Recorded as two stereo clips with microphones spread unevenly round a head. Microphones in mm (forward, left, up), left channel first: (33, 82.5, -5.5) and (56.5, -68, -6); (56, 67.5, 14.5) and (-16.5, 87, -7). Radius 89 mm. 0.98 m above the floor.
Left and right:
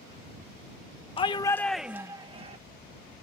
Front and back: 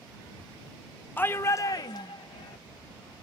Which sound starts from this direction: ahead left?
A shout, at 1.2 s.